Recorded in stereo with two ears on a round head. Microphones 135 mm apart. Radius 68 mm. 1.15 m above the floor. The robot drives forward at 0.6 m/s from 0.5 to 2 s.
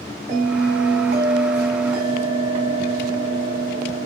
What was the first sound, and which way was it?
A bell, 75° right (ahead or behind).